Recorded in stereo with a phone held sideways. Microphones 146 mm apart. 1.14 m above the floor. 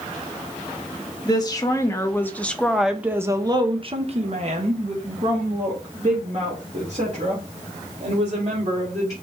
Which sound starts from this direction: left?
A woman speaking, at 1.2 s.